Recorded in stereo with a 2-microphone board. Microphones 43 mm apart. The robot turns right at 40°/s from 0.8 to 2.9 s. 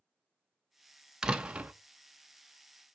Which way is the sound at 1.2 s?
15° right (ahead or behind).